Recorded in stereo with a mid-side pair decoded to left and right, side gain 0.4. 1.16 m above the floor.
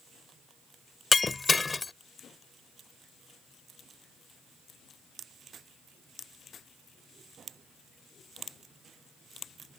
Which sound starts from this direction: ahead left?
Breaking glass, at 1.1 s.